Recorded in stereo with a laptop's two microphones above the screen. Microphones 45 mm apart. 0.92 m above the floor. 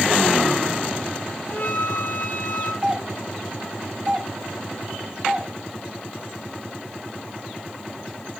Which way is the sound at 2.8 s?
20° right (ahead or behind).